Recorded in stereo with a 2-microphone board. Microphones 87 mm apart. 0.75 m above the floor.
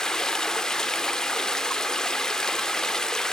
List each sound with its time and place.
0.0 s running water: 5° left (ahead or behind), 0.8 m